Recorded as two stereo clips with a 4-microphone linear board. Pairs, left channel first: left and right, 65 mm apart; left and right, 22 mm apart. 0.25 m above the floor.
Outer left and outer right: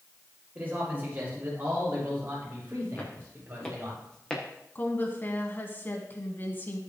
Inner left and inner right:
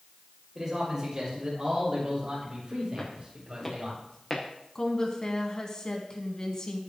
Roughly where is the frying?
I don't hear frying.